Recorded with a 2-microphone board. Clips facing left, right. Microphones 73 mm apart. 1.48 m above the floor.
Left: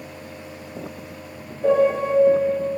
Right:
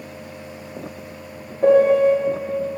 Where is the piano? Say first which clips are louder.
Right 5 dB; 65° right (ahead or behind), 1.0 m.